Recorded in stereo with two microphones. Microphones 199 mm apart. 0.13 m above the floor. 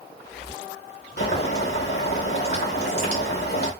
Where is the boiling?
60° left (ahead or behind), 3.5 m.